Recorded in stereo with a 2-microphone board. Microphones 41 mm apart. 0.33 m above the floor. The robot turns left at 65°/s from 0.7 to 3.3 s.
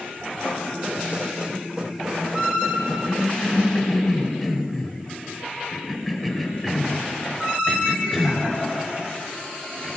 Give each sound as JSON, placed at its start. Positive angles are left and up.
{"t": 0.4, "sound": "writing", "side_deg": 30, "distance_m": 2.0}
{"t": 2.8, "sound": "a cough", "side_deg": 20, "distance_m": 1.0}